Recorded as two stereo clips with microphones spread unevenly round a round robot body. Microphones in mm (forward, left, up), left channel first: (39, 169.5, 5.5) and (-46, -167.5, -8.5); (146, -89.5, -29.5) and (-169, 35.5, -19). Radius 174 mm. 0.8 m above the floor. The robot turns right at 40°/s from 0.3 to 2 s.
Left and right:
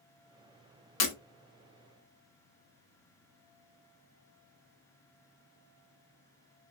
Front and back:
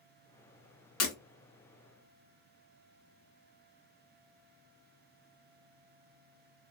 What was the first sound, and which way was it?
Breaking glass, 30° left.